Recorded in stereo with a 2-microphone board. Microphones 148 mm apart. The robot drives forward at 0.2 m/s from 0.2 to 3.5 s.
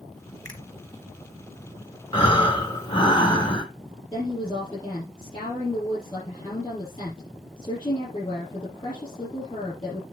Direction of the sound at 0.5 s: 25° left (ahead or behind).